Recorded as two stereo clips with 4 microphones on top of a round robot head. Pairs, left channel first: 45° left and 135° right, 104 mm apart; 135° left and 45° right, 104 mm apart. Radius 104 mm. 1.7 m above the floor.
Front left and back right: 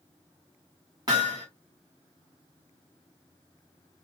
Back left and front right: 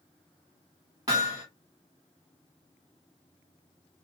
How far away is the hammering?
About 1.1 m.